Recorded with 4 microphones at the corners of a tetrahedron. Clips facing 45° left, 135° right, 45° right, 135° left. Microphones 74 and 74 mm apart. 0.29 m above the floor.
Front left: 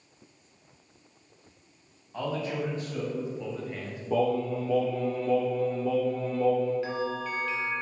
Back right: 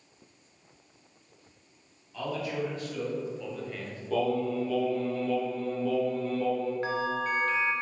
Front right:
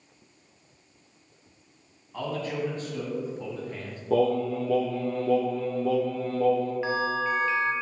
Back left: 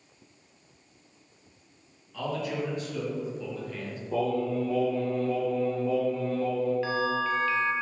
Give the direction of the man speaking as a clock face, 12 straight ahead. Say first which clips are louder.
Front left 1 dB, even; 12 o'clock.